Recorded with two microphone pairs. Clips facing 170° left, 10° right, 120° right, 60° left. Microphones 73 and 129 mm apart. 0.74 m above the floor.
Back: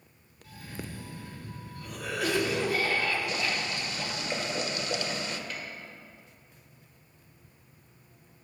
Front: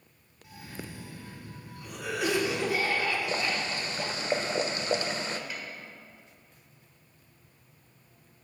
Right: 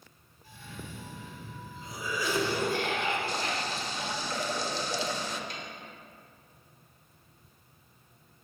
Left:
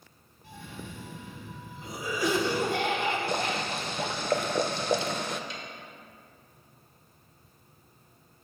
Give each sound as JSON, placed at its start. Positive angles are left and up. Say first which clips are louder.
{"t": 0.4, "sound": "a cough", "louder": "back 1 dB, left 2 dB", "azimuth_deg": 60, "distance_m": 2.0}
{"t": 3.3, "sound": "boiling", "louder": "front 1 dB, left 3 dB", "azimuth_deg": 40, "distance_m": 0.6}
{"t": 5.5, "sound": "a snare drum", "louder": "even, even", "azimuth_deg": -80, "distance_m": 1.8}